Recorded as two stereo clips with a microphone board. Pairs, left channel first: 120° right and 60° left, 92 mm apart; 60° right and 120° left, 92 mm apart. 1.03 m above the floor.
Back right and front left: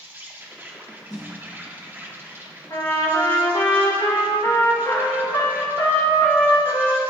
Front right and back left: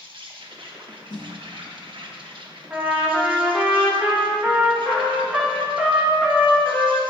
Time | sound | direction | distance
0.0 | an insect | 125° left | 0.8 m
1.1 | a snare drum | 35° right | 1.8 m
2.7 | a trumpet | 160° right | 1.8 m